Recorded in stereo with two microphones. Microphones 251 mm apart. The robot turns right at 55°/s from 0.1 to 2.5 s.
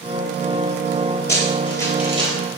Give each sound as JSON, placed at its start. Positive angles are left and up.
{"t": 1.3, "sound": "running footsteps", "side_deg": 45, "distance_m": 1.2}